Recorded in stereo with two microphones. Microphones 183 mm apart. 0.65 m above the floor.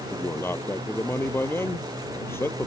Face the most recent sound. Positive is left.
turn(degrees=15)  # may be behind; listen again after turning